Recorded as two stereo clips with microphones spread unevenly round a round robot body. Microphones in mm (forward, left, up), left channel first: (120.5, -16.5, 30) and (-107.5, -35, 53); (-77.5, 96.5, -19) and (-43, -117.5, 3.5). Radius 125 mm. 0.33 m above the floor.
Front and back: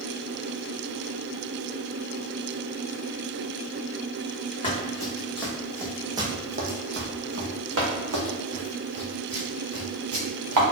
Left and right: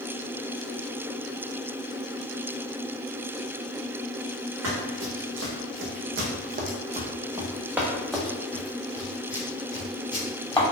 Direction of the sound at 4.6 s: 65° right.